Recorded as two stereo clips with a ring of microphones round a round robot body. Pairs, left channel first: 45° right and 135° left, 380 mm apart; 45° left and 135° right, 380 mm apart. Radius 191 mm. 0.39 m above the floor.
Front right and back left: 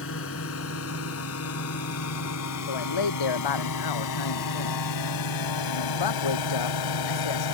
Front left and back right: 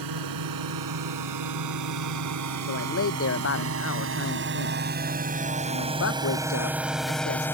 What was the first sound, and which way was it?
A drone, 100° right.